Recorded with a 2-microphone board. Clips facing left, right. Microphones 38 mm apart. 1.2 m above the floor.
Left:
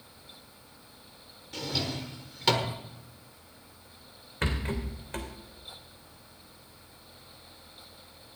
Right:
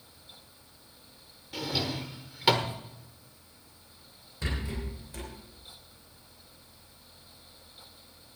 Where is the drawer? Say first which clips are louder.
Right 1 dB; 10° right (ahead or behind), 1.4 m.